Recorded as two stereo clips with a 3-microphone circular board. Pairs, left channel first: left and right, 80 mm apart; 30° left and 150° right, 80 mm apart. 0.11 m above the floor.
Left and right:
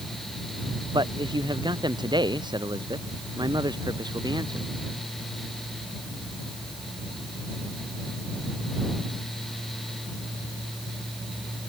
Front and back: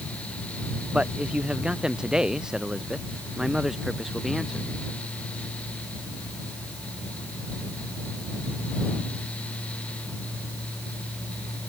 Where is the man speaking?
75° right; by 4.7 s 60° right.